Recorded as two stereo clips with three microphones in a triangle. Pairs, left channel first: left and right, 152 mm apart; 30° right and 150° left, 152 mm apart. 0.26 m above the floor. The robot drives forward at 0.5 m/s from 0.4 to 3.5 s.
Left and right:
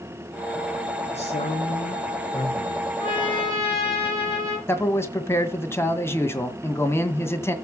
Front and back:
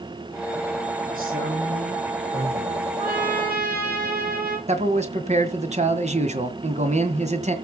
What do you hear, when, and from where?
1.1 s a man speaking: 135° left, 6 m; by 2.9 s 140° left, 6.5 m
3.0 s a trumpet: 140° left, 8 m; by 4.6 s 145° left, 8 m
4.7 s a man speaking: 160° left, 2.0 m